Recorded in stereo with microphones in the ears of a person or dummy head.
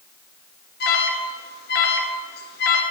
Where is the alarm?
45° left (ahead or behind), 1.2 m.